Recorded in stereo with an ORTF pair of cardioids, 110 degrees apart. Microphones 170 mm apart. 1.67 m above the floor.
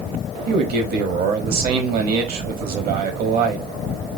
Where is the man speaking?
65° right, 1.2 m.